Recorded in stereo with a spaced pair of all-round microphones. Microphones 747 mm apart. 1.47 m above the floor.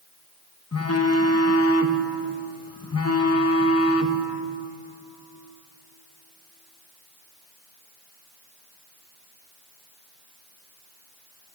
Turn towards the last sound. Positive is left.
turn(degrees=20)  # may be behind; listen again after turning